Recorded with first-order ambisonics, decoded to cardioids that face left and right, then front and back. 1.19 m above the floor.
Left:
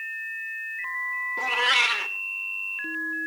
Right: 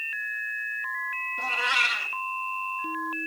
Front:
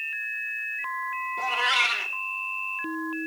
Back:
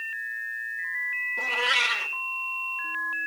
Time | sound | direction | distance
1.4 | a cat meowing | 90° left | 2.5 m